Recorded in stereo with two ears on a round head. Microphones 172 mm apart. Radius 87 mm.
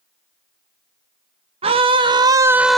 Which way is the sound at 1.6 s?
30° right (ahead or behind).